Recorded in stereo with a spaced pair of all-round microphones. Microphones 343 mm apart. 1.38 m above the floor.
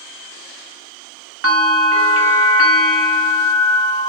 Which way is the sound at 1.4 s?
45° right (ahead or behind).